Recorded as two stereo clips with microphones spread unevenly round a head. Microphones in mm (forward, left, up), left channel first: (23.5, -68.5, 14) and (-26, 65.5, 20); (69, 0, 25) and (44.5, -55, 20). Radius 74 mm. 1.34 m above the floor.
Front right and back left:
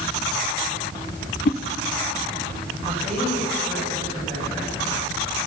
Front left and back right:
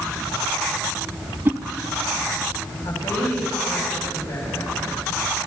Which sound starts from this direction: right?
A whoosh, at 1.4 s.